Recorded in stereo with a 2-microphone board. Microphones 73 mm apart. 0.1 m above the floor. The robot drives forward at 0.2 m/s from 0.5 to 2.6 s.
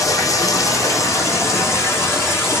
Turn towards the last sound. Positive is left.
turn(degrees=35)  # may be behind; listen again after turning